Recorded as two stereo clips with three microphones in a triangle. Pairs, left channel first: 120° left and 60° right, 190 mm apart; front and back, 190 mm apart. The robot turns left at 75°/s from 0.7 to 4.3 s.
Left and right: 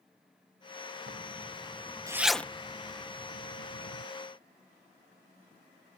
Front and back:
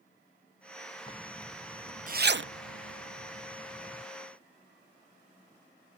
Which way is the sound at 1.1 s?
55° right.